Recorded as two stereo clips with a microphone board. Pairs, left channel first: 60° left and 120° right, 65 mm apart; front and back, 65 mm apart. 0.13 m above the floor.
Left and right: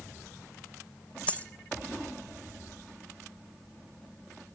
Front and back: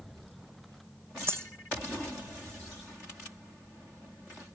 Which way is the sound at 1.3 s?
130° left.